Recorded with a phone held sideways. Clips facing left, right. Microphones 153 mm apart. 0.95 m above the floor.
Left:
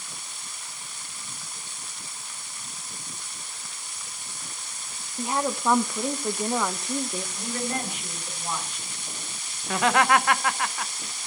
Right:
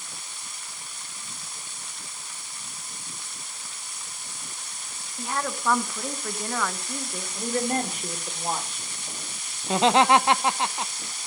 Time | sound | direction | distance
5.2 | a woman speaking | 20° left (ahead or behind) | 0.9 m
7.3 | a woman speaking | 40° right (ahead or behind) | 2.5 m
9.6 | laughter | 25° right (ahead or behind) | 0.7 m